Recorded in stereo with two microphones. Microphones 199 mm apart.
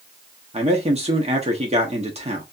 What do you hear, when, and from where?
0.5 s a man speaking: 30° right (ahead or behind), 1.1 m